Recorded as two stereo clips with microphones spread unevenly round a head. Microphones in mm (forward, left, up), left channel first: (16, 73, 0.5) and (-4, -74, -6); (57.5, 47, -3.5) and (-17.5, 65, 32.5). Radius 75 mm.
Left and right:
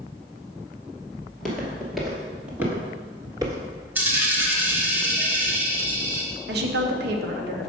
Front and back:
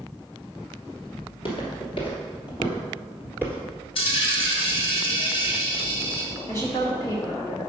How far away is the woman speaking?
About 0.9 m.